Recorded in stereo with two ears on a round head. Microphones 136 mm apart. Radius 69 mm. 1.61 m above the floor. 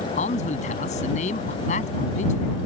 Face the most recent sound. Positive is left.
turn(degrees=45)  # may be behind; listen again after turning